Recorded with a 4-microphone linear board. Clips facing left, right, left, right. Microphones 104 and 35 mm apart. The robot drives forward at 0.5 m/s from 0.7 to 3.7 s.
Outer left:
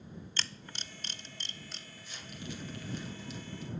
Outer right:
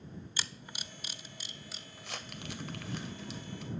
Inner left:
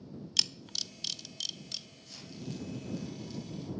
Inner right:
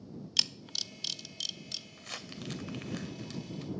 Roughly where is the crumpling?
Right.